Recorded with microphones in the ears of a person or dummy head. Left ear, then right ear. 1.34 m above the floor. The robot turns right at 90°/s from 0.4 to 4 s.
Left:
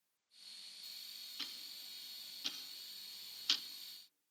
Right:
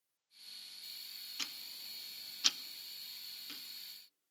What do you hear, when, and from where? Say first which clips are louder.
1.4 s ticking: right 4 dB; 25° right (ahead or behind), 0.7 m; by 3.6 s 45° left (ahead or behind), 0.7 m